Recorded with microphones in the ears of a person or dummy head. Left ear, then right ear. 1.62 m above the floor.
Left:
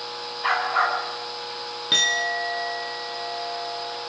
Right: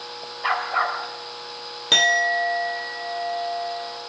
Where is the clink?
20° right (ahead or behind), 0.7 m.